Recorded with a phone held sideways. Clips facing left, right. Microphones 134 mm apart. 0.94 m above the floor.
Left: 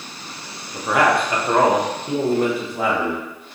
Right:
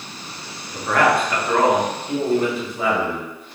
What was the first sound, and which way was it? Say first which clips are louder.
A man speaking: even; 5° left (ahead or behind).